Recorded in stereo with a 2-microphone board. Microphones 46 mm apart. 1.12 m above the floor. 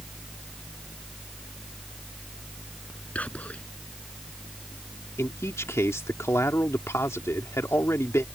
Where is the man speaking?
80° left.